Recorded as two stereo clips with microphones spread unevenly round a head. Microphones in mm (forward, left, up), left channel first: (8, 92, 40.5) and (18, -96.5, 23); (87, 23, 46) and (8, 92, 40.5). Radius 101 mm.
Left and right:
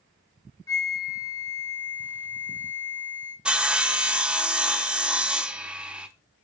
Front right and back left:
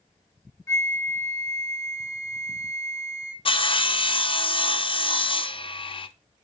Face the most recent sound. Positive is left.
turn(degrees=-5)